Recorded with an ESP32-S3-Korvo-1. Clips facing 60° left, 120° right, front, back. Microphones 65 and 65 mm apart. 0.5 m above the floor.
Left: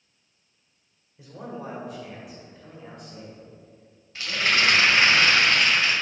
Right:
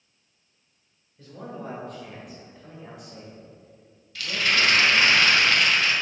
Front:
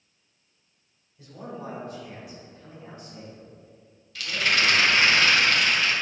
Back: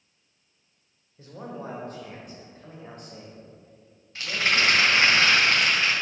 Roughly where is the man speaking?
Behind left.